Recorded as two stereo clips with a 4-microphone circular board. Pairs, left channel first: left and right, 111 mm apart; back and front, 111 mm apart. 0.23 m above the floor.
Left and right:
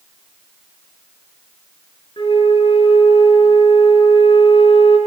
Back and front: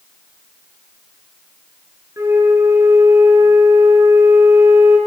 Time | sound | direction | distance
2.2 | a flute | 60° left | 1.0 m